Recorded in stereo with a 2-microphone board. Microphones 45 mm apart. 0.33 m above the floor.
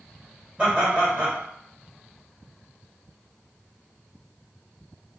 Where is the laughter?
30° right (ahead or behind), 1.8 m.